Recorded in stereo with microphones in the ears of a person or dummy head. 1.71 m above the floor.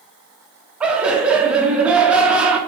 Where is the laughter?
5° right (ahead or behind), 0.6 m.